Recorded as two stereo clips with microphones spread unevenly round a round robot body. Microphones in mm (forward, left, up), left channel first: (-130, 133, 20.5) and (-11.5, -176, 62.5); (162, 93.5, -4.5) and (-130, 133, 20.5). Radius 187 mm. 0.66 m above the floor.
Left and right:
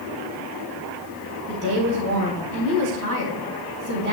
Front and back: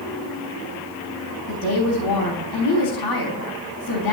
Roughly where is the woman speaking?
Ahead.